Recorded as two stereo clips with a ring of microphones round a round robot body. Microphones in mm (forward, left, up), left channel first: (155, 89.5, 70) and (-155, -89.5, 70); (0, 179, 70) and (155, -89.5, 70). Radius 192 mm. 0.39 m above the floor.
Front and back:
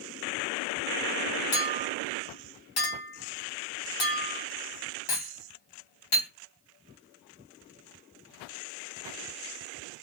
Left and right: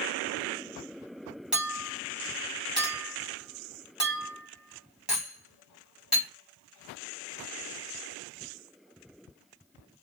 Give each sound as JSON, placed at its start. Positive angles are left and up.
{"t": 1.5, "sound": "a clink", "azimuth_deg": 25, "distance_m": 2.0}